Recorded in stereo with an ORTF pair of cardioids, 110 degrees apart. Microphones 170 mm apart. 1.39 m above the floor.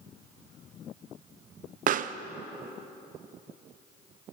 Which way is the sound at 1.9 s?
50° right.